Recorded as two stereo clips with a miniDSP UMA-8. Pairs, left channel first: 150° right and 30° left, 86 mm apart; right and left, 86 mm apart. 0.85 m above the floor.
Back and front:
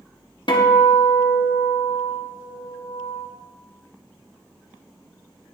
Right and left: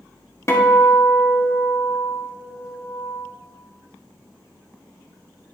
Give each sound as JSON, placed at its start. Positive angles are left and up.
{"t": 0.5, "sound": "a guitar", "azimuth_deg": -145, "distance_m": 1.4}